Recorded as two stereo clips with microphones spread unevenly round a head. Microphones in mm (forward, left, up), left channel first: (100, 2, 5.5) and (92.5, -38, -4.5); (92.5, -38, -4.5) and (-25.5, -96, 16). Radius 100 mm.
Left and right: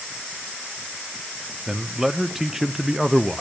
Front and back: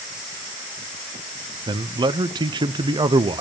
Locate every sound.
1.7 s a man speaking: 130° right, 0.5 m